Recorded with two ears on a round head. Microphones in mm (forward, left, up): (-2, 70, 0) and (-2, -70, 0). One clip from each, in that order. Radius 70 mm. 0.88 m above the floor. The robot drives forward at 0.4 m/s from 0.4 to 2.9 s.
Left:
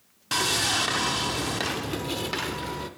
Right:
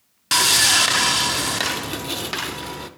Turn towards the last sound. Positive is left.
turn(degrees=-25)  # may be behind; listen again after turning